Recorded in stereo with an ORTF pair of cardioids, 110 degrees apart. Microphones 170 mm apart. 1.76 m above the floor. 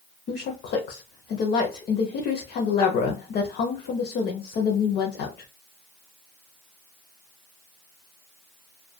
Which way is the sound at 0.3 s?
65° left.